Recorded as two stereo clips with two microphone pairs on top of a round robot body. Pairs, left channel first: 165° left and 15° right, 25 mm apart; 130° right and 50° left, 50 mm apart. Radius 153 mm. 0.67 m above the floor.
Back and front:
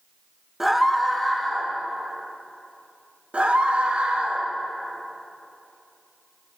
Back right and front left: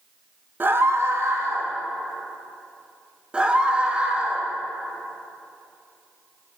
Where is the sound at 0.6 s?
30° left, 1.0 m; by 1.7 s 75° left, 2 m.